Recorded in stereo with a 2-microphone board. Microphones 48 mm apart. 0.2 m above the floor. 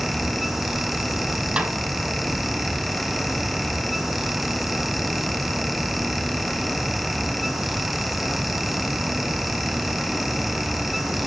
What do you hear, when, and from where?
1.6 s a snare drum: 15° right (ahead or behind), 2 m